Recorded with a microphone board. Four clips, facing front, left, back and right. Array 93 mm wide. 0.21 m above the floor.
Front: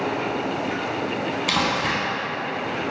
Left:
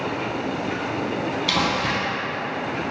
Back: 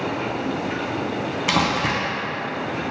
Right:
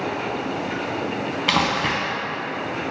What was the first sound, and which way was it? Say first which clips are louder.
Crumpling: right 3 dB, back 3 dB; 120° right.